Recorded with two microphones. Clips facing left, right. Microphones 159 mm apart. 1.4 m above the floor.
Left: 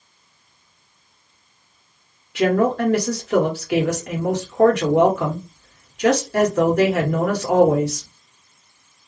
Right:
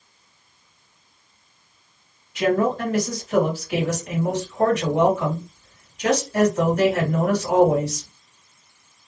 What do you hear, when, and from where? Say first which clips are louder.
2.4 s a woman speaking: left 2 dB; 75° left (ahead or behind), 1.3 m